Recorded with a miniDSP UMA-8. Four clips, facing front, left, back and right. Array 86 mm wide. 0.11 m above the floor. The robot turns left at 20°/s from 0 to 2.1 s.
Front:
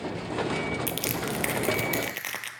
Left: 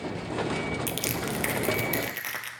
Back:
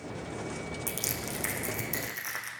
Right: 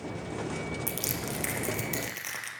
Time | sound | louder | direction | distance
0.9 | crushing | left 4 dB, front 7 dB | 40° left | 1.3 m